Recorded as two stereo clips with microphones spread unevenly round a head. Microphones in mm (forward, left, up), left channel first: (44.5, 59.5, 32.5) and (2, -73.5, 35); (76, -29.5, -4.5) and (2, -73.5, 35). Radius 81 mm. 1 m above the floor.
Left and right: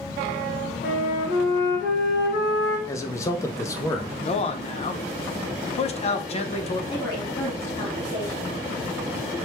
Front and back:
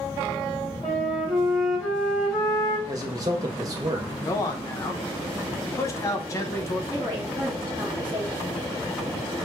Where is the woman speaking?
140° left, 1.9 m.